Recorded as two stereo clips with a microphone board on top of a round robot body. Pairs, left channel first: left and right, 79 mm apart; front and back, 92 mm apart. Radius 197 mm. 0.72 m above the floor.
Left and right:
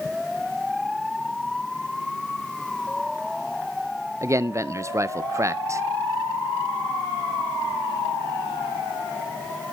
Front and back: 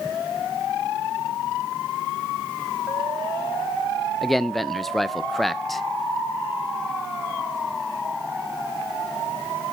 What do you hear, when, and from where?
4.2 s a man speaking: 85° right, 0.6 m